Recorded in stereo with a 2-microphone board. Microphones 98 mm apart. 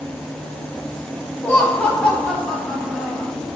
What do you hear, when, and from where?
1.4 s laughter: 20° left (ahead or behind), 1.7 m; by 3.3 s 5° right (ahead or behind), 2 m